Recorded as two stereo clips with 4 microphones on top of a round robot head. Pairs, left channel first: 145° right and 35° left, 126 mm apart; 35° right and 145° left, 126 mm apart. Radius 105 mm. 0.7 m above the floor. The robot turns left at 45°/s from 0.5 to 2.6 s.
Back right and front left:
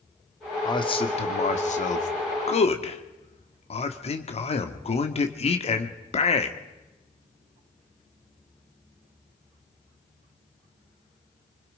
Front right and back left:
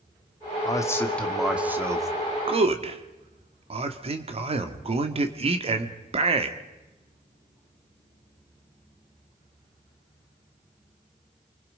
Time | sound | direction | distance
0.7 | a man speaking | 90° right | 1.6 m